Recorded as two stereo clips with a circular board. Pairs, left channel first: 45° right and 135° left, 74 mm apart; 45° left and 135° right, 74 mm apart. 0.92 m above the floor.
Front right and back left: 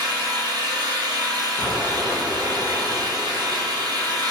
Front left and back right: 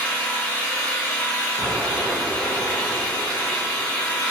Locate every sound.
0.0 s an engine running: 120° left, 1.1 m
1.6 s an explosion: 135° right, 1.2 m